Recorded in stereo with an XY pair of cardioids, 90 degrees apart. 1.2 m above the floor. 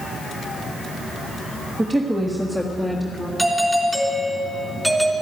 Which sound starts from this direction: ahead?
A doorbell, at 3.4 s.